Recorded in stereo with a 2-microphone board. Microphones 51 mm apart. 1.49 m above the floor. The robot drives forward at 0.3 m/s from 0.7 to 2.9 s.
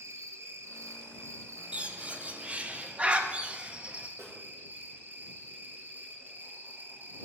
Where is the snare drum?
70° right (ahead or behind), 2.5 m.